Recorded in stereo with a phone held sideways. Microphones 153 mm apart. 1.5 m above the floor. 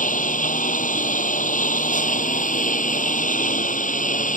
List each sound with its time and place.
0.0 s a lawn mower: 60° left (ahead or behind)